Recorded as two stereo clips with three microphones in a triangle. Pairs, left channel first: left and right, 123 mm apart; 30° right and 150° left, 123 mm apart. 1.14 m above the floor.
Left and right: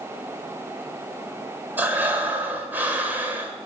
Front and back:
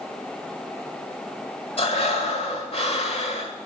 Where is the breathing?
15° right, 1.4 m.